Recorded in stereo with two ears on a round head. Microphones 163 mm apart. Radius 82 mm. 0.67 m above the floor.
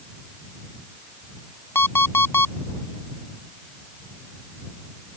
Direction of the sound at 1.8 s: 15° left (ahead or behind).